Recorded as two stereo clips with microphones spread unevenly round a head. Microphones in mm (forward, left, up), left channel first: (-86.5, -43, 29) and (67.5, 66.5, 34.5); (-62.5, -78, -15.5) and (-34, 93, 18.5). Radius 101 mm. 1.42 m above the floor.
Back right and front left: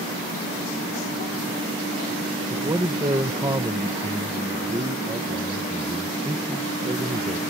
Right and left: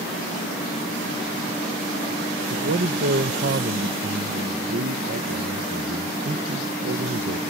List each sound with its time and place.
2.5 s a man speaking: 105° left